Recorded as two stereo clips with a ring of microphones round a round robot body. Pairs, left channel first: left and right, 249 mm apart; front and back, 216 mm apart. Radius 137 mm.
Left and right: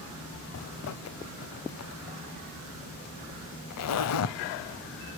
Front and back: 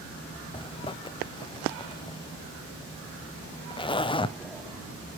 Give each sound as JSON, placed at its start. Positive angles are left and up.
{"t": 0.5, "sound": "a zipper", "azimuth_deg": 70, "distance_m": 0.7}